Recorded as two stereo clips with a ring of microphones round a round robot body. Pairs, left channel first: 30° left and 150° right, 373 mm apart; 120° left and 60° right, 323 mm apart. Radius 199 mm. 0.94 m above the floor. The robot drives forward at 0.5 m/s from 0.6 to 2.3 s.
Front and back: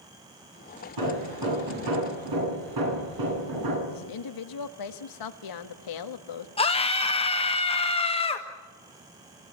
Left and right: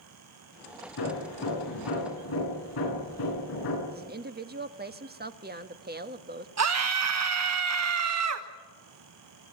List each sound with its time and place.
1.0 s hammering: 175° left, 10 m
3.9 s a woman speaking: straight ahead, 1.7 m
6.6 s a scream: 40° right, 1.3 m